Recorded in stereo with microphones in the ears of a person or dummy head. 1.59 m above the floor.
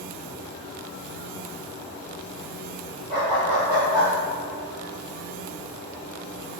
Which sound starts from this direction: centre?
A dog barking, at 3.1 s.